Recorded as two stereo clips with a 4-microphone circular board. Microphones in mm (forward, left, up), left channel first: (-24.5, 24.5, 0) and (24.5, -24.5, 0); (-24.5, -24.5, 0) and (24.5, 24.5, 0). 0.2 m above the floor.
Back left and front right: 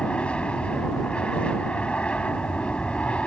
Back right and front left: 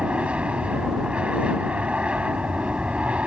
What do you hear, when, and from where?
0.0 s an aircraft: 90° left